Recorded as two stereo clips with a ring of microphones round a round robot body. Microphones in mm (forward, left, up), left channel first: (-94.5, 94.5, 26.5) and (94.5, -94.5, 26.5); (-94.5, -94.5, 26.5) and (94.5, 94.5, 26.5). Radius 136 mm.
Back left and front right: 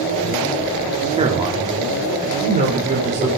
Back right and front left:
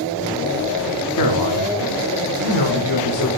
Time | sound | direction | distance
1.1 | a man speaking | 115° right | 2.5 m